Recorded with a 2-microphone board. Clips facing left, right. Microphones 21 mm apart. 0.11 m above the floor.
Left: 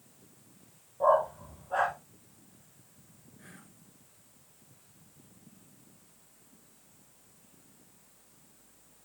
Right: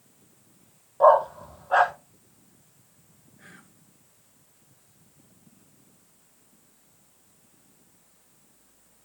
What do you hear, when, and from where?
1.0 s a dog barking: 60° right (ahead or behind), 1.0 m
3.4 s whispering: 20° right (ahead or behind), 1.2 m